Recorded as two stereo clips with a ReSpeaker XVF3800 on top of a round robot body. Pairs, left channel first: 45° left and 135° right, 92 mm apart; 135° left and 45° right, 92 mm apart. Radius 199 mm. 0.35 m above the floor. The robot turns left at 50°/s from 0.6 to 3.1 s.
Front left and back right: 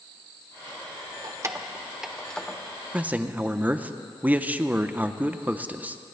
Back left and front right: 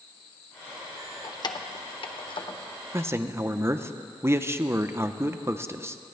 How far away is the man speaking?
About 0.9 m.